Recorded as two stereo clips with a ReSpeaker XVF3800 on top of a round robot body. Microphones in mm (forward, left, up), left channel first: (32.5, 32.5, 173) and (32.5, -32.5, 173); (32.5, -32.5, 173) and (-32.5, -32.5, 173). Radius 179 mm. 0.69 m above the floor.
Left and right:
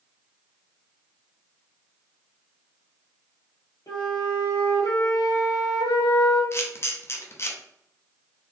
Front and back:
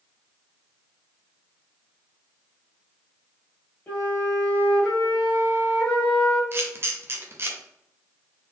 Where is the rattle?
No rattle in this recording.